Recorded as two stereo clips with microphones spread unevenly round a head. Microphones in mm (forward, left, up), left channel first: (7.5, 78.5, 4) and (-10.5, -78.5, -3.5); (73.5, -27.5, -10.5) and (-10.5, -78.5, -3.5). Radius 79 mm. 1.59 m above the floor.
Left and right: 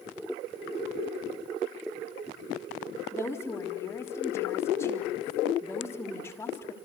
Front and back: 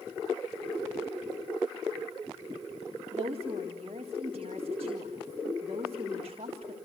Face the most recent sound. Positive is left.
turn(degrees=155)